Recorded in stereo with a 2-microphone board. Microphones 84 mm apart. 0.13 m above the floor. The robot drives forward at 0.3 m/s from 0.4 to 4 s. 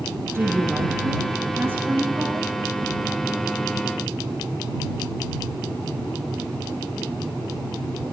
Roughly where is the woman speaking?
Right.